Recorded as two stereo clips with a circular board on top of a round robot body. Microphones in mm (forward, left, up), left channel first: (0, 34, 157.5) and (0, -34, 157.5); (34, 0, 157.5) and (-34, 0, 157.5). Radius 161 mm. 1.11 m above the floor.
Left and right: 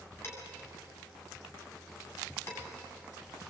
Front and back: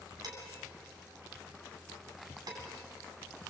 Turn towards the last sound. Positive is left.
turn(degrees=145)